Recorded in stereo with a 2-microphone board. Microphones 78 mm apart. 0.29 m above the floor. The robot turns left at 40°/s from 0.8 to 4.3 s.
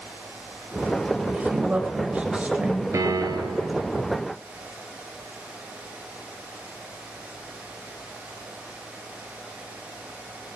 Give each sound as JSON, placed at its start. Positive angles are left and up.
{"t": 1.3, "sound": "a woman speaking", "side_deg": -20, "distance_m": 1.3}
{"t": 2.9, "sound": "a piano", "azimuth_deg": -50, "distance_m": 1.5}